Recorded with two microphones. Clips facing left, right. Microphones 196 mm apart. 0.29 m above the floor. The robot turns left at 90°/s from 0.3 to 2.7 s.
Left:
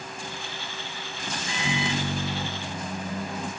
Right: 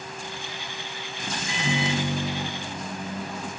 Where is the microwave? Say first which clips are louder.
Right 2 dB; 175° left, 1.1 m; by 3.5 s 65° left, 1.1 m.